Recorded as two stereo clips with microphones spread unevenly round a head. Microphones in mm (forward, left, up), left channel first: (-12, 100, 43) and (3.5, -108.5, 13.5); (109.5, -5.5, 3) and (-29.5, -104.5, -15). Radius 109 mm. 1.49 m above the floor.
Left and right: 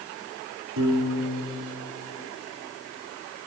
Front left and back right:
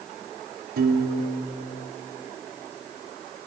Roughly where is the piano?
Behind right.